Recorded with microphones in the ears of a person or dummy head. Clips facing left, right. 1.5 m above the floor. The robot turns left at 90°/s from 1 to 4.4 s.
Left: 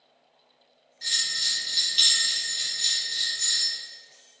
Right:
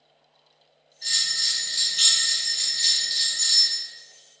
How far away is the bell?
About 1.4 m.